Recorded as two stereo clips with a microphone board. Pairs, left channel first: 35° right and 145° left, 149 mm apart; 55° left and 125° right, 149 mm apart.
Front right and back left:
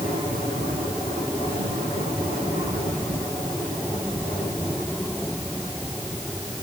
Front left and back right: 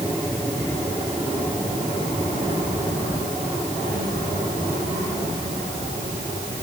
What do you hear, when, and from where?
Only background noise.